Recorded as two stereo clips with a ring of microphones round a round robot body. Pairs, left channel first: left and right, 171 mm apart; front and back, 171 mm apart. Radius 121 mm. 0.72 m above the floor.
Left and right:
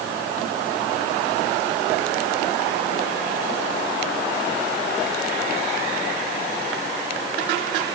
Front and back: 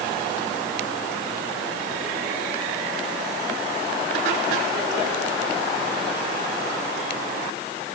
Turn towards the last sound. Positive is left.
No sound to turn to.